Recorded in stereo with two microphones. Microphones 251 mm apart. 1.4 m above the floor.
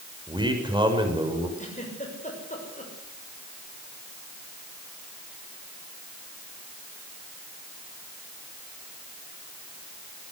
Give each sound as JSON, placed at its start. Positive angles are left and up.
{"t": 0.3, "sound": "a man speaking", "side_deg": -20, "distance_m": 6.5}
{"t": 1.6, "sound": "a giggle", "side_deg": 30, "distance_m": 6.5}